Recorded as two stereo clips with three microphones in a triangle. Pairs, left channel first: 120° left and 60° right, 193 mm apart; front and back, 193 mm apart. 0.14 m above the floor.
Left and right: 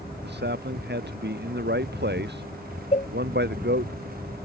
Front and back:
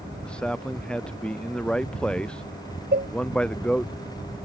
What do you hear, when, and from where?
0.2 s a man speaking: 85° right
2.9 s a cowbell: 165° left